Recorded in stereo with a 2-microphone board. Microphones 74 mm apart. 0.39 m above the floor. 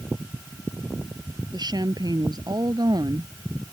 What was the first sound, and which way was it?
A woman speaking, 65° right (ahead or behind).